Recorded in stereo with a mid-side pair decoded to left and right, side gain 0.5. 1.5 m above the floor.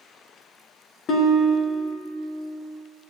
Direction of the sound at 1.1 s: 55° left.